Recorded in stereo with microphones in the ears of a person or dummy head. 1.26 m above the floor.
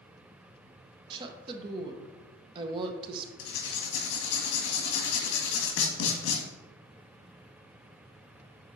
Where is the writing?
70° left (ahead or behind), 1.6 m.